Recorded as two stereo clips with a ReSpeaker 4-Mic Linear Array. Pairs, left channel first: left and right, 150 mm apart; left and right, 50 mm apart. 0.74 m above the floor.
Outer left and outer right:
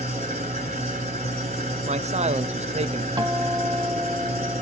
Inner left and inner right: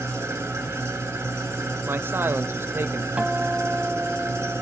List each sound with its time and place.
0.0 s an engine running: 50° right (ahead or behind), 2.5 m
1.9 s a man speaking: 45° right (ahead or behind), 0.6 m
3.2 s a guitar: 25° right (ahead or behind), 0.6 m